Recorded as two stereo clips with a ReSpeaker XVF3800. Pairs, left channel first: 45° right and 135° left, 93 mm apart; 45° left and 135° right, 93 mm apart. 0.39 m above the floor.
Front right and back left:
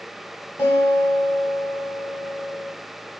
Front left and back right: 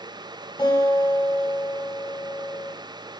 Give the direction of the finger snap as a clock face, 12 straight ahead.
I don't hear a finger snap.